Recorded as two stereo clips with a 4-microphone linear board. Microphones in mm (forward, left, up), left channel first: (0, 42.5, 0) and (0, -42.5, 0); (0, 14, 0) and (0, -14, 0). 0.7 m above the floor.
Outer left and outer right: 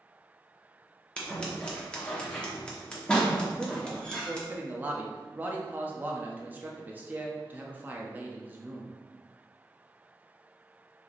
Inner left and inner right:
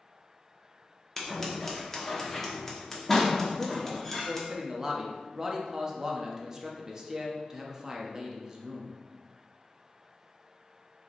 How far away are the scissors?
About 1.0 m.